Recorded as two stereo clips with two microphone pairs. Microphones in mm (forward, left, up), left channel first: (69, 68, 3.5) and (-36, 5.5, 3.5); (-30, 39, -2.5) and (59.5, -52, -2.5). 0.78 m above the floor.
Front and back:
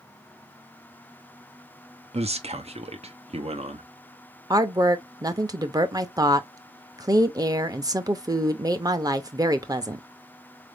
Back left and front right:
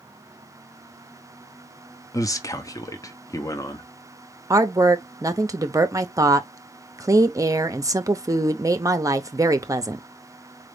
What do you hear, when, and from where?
2.1 s a man speaking: 165° right, 0.7 m
4.5 s a woman speaking: 95° right, 0.6 m